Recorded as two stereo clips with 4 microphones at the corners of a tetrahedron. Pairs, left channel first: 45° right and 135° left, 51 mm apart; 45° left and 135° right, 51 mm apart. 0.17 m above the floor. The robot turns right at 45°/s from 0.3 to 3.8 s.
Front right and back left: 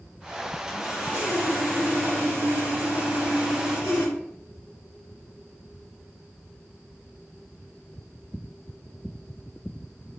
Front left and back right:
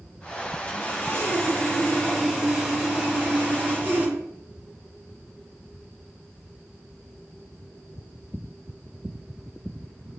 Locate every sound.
0.7 s sawing: 60° left, 2 m; by 4.1 s 160° right, 2 m